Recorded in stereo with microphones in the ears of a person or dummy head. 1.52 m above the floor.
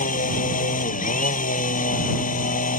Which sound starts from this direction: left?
A machine running, at 0.0 s.